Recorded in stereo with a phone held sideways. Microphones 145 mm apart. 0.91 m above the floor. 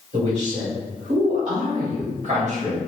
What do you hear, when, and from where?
0.1 s a man speaking: 55° right (ahead or behind), 1.9 m; by 2.8 s 45° right (ahead or behind), 1.4 m